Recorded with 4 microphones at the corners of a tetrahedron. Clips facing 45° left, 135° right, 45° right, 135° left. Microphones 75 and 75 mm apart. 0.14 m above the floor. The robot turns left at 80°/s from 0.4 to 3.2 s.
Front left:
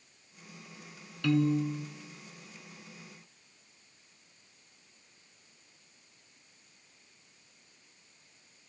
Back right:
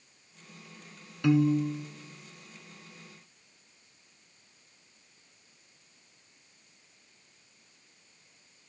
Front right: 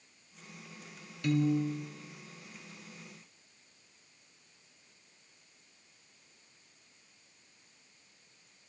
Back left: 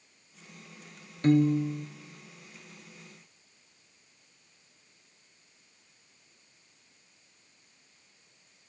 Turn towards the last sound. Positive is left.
turn(degrees=5)